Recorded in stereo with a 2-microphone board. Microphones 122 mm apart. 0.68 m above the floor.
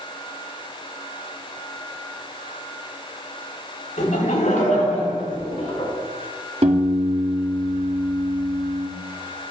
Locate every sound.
4.0 s laughter: 80° left, 4 m; by 5.9 s 85° left, 5.5 m
6.6 s a piano: 55° right (ahead or behind), 1.5 m